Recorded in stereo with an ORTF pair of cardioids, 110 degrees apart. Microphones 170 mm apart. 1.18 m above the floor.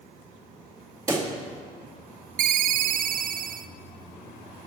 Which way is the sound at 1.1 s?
20° right.